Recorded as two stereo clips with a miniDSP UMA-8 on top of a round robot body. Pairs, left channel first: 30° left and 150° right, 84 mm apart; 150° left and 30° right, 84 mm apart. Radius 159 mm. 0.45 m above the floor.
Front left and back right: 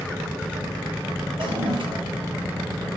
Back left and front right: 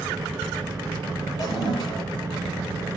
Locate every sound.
1.4 s a toilet flushing: 170° right, 9.5 m